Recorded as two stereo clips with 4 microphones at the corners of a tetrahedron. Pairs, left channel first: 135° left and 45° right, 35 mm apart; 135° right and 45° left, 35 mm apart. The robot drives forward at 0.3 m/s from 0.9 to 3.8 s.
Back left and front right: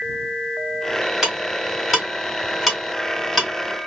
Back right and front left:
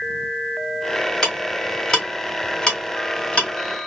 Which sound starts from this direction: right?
Ticking, at 1.2 s.